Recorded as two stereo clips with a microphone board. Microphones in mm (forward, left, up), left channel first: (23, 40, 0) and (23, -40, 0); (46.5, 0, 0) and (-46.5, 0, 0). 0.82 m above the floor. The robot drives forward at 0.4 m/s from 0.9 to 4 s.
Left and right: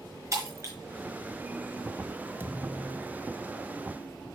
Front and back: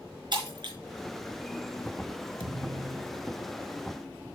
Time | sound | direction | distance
0.3 | breaking glass | 140° right | 4.5 m
2.4 | a thud | 150° right | 1.2 m